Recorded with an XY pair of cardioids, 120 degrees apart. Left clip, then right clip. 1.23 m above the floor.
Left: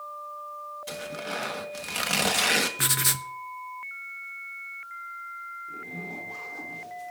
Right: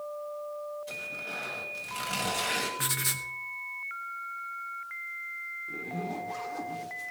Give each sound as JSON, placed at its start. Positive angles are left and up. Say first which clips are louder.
{"t": 0.9, "sound": "tearing paper", "louder": "left 2 dB", "azimuth_deg": 60, "distance_m": 1.7}
{"t": 2.8, "sound": "writing", "louder": "left 5 dB", "azimuth_deg": 40, "distance_m": 0.9}
{"t": 5.7, "sound": "a zipper", "louder": "right 1 dB", "azimuth_deg": -25, "distance_m": 1.8}